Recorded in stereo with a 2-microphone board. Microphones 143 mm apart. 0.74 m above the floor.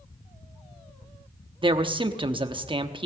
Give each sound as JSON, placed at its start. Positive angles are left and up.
{"t": 1.6, "sound": "a man speaking", "side_deg": -35, "distance_m": 0.9}